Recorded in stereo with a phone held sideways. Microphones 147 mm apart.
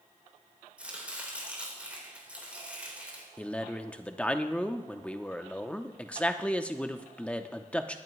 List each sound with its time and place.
0.8 s chopping: 10° right (ahead or behind), 3 m
3.4 s a man speaking: 10° left (ahead or behind), 0.6 m